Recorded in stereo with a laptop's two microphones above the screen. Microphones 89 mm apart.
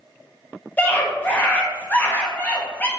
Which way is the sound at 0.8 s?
20° left (ahead or behind).